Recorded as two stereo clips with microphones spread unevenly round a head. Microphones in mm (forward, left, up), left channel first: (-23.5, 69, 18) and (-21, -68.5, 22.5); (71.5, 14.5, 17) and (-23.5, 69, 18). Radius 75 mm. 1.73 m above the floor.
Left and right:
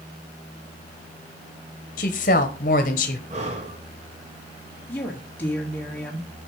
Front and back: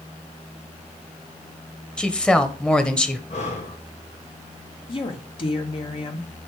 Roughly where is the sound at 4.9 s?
Ahead.